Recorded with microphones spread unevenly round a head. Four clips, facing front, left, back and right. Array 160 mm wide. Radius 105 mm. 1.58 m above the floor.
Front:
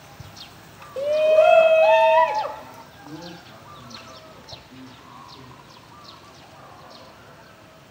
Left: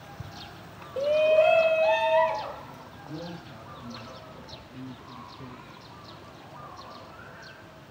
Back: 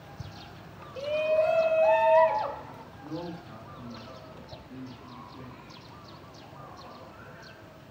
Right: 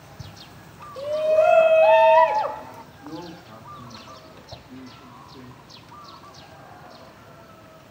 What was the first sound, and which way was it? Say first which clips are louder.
A shout: right 1 dB, front 9 dB; 25° left.